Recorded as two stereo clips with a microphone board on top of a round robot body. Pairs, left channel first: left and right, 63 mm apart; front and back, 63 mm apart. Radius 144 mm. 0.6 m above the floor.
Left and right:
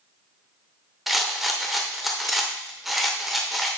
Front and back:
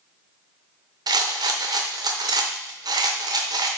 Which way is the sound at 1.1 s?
Straight behind.